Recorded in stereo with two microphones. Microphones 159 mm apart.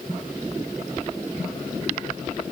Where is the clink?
I don't hear a clink.